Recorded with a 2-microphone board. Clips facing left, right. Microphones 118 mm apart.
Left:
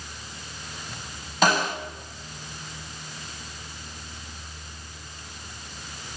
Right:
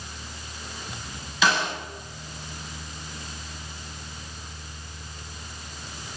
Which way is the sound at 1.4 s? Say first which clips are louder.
Left 2 dB; 50° left (ahead or behind).